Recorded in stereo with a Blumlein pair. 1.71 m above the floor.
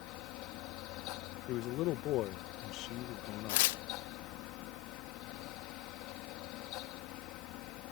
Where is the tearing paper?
50° left.